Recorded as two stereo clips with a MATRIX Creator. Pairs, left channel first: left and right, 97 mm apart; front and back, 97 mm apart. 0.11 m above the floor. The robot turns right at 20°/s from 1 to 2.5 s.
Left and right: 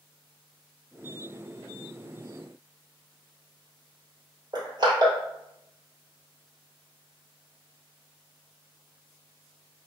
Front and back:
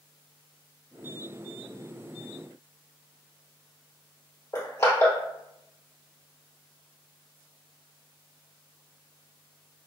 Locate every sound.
4.5 s crushing: 55° right, 1.9 m